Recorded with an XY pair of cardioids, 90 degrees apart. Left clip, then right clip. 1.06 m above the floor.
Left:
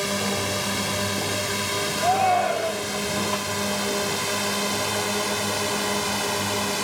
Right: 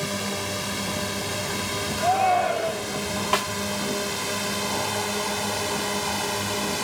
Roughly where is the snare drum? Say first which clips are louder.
Right 4 dB; ahead right.